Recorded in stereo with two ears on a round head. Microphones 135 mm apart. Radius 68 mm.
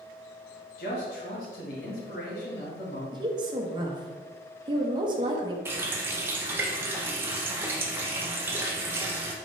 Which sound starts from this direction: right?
A woman speaking, at 3.1 s.